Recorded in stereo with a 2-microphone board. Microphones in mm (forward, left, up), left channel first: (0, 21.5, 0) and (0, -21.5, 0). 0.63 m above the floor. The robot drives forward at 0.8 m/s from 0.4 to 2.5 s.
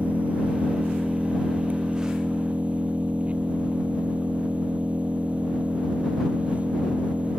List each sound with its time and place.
0.0 s an engine running: 30° right (ahead or behind)